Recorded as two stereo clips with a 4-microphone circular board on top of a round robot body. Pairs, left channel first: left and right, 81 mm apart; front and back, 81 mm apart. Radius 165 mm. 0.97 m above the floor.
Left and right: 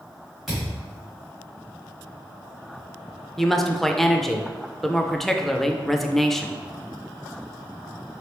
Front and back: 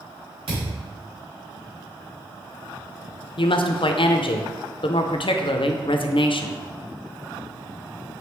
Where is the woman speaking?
5° left, 0.5 m.